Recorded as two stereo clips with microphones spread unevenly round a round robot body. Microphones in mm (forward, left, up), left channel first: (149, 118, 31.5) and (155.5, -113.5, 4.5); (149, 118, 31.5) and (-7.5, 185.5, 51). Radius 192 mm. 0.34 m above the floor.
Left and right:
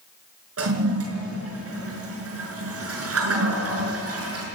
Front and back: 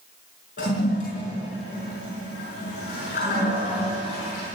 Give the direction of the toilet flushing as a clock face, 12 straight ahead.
3 o'clock.